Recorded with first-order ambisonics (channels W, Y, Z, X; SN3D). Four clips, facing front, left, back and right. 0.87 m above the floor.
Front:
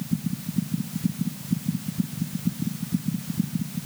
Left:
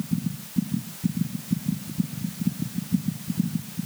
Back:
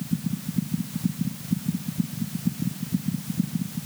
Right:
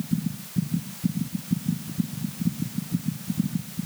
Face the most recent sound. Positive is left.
No sound to turn to.